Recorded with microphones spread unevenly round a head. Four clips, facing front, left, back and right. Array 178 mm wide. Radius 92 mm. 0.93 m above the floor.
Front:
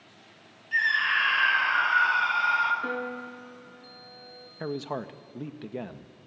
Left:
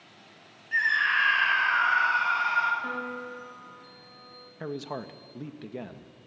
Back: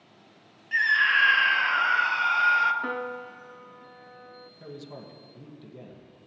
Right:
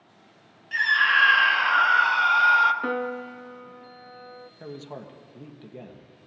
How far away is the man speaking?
About 1.3 m.